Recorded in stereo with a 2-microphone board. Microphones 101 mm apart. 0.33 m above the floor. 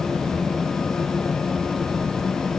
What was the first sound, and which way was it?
Only background noise.